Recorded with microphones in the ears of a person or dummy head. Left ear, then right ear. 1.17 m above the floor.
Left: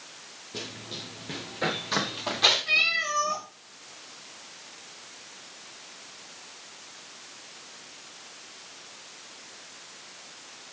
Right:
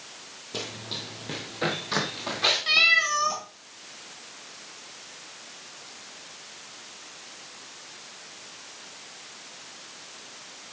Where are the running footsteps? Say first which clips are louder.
Right 4 dB; 30° right (ahead or behind), 1.4 m; by 2.6 s 15° left (ahead or behind), 2.5 m.